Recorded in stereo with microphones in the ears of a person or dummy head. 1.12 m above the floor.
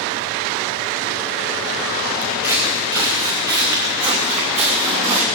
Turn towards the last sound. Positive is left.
turn(degrees=-20)  # may be behind; listen again after turning